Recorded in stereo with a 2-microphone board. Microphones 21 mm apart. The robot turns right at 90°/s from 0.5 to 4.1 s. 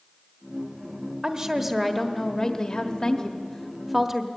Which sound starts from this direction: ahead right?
A woman speaking, at 1.2 s.